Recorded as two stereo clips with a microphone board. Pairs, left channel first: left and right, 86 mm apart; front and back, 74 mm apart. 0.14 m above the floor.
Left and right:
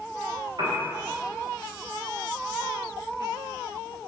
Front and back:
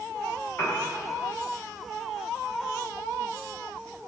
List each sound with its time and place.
0.6 s a piano: 55° right, 7.5 m